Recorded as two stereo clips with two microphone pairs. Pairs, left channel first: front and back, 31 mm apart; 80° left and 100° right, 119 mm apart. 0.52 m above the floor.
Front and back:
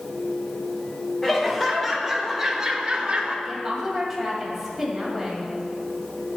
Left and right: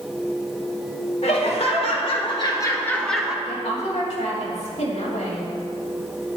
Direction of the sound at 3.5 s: 95° left.